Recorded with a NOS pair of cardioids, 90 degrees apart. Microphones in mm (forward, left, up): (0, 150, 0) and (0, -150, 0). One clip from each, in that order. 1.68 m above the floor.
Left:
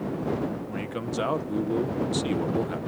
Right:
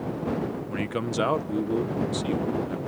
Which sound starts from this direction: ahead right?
A man speaking, at 0.7 s.